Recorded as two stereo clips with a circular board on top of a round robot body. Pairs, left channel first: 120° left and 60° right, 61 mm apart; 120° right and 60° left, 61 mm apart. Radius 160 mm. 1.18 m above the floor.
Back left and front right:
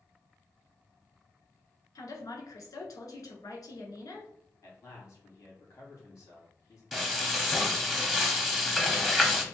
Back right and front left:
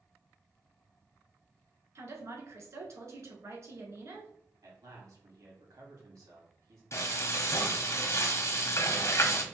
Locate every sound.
1.9 s a woman speaking: 95° left, 1.6 m
4.6 s a man speaking: 75° left, 2 m
6.9 s frying: 145° right, 1.0 m